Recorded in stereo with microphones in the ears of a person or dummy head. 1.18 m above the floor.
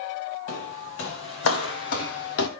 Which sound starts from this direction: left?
Footsteps, at 0.5 s.